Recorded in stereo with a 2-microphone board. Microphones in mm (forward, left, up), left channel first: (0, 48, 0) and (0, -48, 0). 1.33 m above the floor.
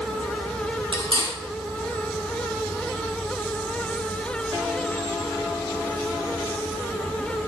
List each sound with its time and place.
0.9 s cutlery clinking: 60° right (ahead or behind), 2.5 m